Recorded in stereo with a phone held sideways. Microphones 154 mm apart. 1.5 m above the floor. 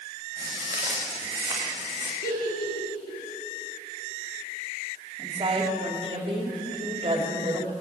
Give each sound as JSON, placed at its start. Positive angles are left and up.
{"t": 0.4, "sound": "footsteps", "side_deg": -20, "distance_m": 5.5}
{"t": 2.2, "sound": "a giggle", "side_deg": 85, "distance_m": 3.5}
{"t": 5.2, "sound": "a woman speaking", "side_deg": -35, "distance_m": 3.0}